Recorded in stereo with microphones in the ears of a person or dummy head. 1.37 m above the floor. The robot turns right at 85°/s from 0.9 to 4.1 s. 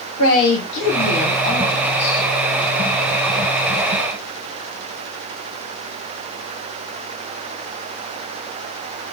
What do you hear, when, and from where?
0.2 s a man speaking: 80° left, 1.3 m; by 2.2 s 165° right, 1.3 m